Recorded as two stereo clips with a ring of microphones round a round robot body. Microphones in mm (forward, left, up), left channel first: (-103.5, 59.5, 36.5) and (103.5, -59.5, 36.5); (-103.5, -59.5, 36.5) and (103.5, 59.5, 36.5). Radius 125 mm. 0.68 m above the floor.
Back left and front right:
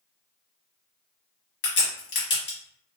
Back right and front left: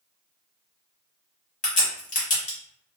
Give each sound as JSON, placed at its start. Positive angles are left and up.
{"t": 1.6, "sound": "a crack", "azimuth_deg": 165, "distance_m": 1.4}